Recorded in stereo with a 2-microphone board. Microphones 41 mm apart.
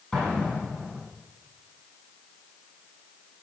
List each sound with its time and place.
0.1 s an explosion: 15° left (ahead or behind), 8.5 m